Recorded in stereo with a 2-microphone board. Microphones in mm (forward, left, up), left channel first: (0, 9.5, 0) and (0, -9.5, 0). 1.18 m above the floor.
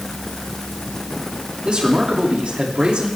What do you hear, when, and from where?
1.6 s a man speaking: 70° right (ahead or behind), 2.5 m; by 3.1 s 85° right, 3 m